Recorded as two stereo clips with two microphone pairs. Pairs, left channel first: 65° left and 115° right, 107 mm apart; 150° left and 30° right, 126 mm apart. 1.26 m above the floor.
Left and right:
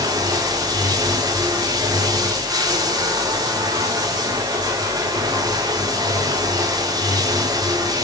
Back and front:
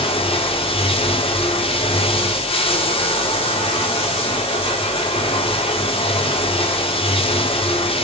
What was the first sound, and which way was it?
Running water, 170° right.